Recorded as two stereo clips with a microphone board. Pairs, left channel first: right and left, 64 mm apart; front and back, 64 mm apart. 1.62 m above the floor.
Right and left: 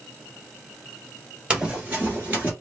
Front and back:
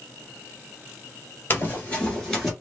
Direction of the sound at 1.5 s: 30° left.